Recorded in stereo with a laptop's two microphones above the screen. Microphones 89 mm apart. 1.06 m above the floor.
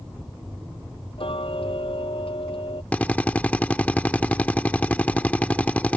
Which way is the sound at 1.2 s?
85° left.